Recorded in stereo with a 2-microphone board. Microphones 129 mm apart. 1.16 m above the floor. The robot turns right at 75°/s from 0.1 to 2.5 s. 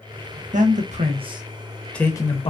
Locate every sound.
0.5 s a man speaking: 75° right (ahead or behind), 0.9 m; by 2.5 s 50° left (ahead or behind), 0.9 m